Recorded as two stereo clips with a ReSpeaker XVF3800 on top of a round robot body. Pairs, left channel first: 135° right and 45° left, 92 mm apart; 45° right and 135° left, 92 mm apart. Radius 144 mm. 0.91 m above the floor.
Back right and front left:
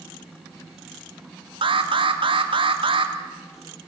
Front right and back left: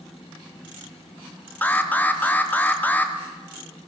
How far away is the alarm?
About 1.9 m.